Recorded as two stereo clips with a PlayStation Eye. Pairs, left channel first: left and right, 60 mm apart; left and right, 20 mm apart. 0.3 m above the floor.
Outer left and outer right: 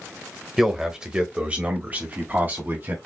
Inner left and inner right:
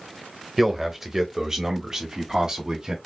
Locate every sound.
0.6 s a man speaking: 5° right (ahead or behind), 1.1 m; by 3.0 s 40° right (ahead or behind), 1.5 m